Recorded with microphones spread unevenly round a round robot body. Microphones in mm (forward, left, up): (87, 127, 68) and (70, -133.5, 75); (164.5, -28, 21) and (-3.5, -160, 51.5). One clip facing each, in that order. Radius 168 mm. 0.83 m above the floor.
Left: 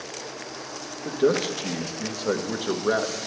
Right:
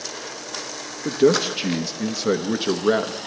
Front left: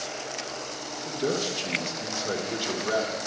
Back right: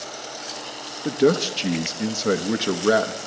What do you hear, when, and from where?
1.1 s a man speaking: 140° right, 0.9 m